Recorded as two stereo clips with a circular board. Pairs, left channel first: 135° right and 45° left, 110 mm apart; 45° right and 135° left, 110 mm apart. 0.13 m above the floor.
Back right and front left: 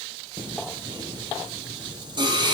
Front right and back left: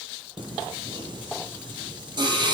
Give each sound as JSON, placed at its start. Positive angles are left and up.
{"t": 0.4, "sound": "singing", "azimuth_deg": 90, "distance_m": 1.2}